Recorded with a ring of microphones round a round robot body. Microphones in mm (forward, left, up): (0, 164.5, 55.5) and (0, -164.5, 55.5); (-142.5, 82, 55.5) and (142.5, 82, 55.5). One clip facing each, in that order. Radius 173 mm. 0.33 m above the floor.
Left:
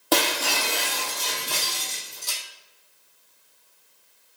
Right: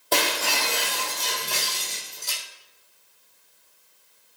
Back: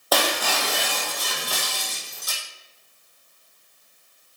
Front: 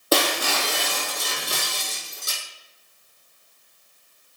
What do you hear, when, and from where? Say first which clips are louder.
0.1 s breaking glass: left 3 dB, front 2 dB; 65° left, 4 m